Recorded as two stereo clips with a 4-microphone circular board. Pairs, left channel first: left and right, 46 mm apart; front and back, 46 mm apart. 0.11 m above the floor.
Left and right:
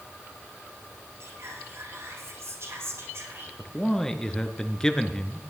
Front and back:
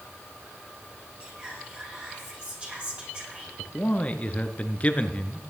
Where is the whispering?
115° right, 5.5 m.